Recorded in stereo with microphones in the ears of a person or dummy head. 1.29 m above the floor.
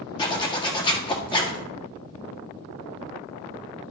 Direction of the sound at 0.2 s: 20° left (ahead or behind).